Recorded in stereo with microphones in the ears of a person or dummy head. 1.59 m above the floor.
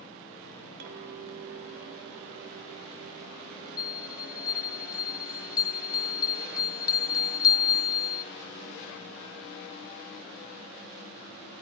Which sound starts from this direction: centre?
A bell, at 3.8 s.